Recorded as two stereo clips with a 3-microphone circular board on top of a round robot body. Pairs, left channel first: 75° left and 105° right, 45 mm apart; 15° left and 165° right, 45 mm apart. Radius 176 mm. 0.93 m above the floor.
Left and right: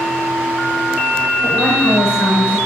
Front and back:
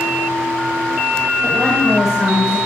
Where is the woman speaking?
95° left, 7.5 m; by 2.6 s 105° left, 8 m.